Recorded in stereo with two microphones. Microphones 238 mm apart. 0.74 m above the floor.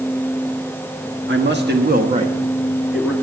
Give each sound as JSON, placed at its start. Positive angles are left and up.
{"t": 1.3, "sound": "a man speaking", "side_deg": -50, "distance_m": 1.6}